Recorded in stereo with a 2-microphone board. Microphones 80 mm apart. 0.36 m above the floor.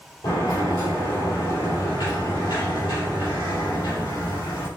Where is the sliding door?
85° left, 3 m.